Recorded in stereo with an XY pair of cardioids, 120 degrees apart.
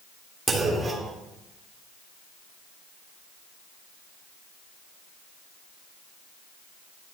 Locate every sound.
0.5 s a clunk: 30° right, 3 m